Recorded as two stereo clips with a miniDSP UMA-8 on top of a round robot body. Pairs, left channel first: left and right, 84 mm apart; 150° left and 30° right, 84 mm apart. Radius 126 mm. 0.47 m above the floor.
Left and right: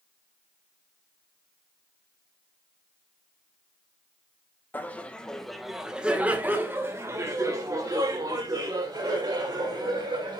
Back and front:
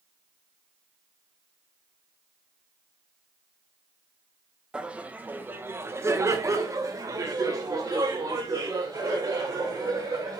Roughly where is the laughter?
Ahead left.